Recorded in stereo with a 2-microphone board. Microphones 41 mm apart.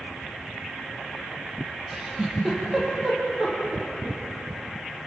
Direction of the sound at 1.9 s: 10° right (ahead or behind).